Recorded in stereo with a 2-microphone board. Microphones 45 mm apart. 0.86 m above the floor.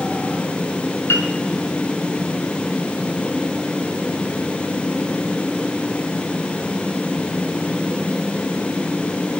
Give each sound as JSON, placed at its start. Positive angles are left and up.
{"t": 1.1, "sound": "a piano", "side_deg": 85, "distance_m": 4.5}